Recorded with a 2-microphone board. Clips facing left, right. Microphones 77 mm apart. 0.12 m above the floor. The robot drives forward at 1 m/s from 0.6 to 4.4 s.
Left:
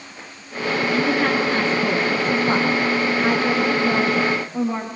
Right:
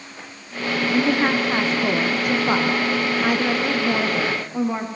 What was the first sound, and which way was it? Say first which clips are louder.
A woman speaking: right 1 dB; 20° right (ahead or behind).